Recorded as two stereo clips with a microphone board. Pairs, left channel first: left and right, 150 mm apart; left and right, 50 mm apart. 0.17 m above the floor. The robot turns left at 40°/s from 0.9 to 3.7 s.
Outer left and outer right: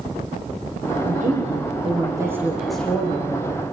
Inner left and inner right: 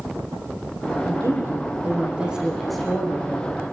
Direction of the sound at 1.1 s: 115° right.